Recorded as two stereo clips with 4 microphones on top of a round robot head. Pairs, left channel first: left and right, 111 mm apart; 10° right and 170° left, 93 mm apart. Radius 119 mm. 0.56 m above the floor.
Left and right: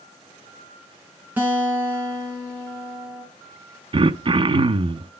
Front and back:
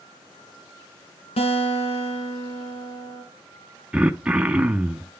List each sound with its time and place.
1.4 s a guitar: 15° right, 3 m
3.9 s throat clearing: 115° right, 0.6 m